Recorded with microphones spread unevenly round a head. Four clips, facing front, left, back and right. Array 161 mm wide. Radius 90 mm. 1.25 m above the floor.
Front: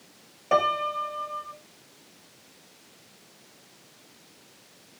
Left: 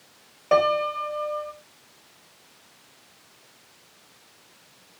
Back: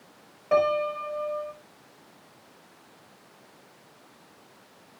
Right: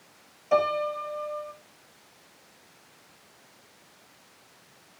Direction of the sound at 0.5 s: 60° left.